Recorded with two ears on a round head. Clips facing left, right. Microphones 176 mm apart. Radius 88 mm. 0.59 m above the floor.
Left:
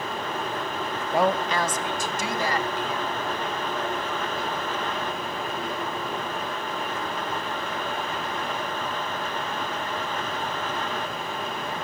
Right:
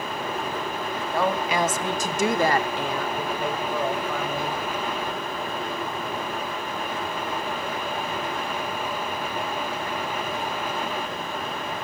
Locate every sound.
1.1 s a woman speaking: 20° left (ahead or behind), 0.6 m; by 4.6 s 60° right (ahead or behind), 2.5 m